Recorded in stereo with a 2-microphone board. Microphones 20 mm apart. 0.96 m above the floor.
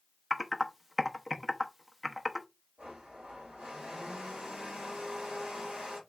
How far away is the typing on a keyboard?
About 0.7 m.